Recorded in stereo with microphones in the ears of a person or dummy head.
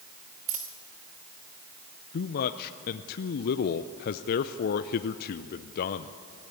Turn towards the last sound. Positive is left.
turn(degrees=50)  # may be behind; listen again after turning